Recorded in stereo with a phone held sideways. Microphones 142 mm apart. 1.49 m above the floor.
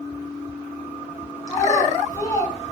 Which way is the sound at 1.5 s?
20° left (ahead or behind).